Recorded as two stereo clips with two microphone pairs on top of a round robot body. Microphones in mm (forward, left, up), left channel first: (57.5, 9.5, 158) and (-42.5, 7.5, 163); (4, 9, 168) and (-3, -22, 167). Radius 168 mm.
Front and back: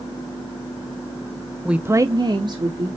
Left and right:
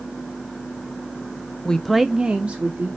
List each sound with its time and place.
1.6 s a woman speaking: 100° left, 0.8 m; by 2.9 s 145° right, 1.6 m